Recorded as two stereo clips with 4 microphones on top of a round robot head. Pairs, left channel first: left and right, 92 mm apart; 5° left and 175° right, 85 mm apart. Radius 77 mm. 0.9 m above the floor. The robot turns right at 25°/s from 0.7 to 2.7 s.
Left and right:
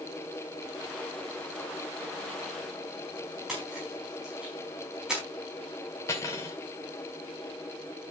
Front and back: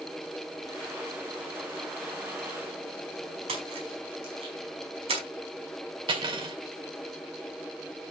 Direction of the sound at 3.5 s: 175° right.